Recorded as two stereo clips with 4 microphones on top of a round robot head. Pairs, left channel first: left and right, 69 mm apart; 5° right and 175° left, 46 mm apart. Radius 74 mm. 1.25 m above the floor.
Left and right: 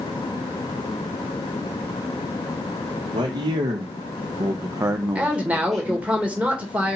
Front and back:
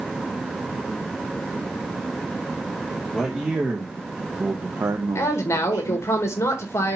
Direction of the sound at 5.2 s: 20° right.